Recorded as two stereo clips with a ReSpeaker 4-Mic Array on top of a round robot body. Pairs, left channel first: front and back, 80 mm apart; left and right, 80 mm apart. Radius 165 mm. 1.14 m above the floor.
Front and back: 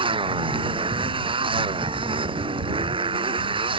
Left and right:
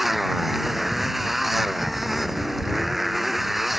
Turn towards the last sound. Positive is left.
turn(degrees=-175)